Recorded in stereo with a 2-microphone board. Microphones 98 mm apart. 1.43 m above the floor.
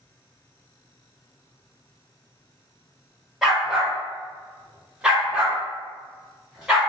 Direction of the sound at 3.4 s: 5° right (ahead or behind).